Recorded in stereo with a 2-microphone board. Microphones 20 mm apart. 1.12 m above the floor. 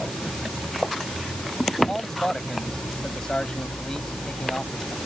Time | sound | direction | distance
1.9 | a man speaking | 35° left (ahead or behind) | ?